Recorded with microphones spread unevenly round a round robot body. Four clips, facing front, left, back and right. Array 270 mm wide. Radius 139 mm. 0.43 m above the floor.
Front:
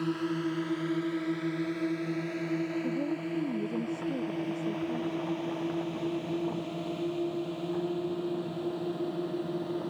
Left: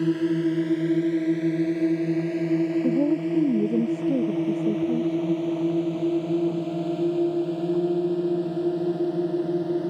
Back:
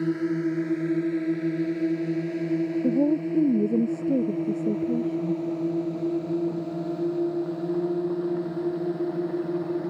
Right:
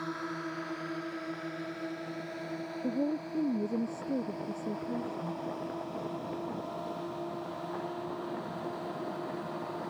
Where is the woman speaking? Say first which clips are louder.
Left 10 dB, back 9 dB; 150° left.